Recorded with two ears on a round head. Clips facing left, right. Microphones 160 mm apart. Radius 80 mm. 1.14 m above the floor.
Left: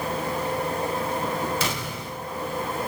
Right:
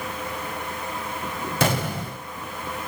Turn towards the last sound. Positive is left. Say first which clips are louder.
# right 6 dB
turn(degrees=-45)  # may be behind; listen again after turning